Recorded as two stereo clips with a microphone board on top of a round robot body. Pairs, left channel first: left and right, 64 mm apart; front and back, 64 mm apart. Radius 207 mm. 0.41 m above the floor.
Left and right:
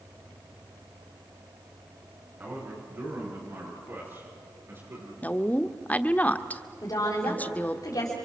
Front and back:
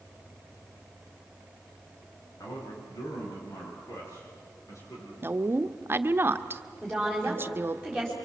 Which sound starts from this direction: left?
A woman speaking, at 6.8 s.